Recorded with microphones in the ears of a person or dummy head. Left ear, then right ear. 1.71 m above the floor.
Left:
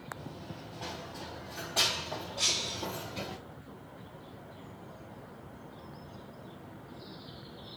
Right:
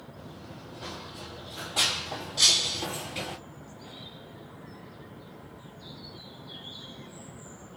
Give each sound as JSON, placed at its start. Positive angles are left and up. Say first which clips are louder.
{"t": 0.2, "sound": "running footsteps", "louder": "even", "side_deg": 25, "distance_m": 2.0}
{"t": 2.4, "sound": "breaking glass", "louder": "right 9 dB", "side_deg": -25, "distance_m": 2.0}